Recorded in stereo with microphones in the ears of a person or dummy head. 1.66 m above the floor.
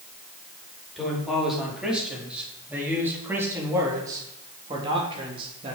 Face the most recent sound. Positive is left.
turn(degrees=-35)  # may be behind; listen again after turning